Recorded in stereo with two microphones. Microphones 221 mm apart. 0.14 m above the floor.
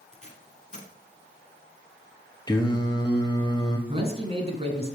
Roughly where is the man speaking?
Right.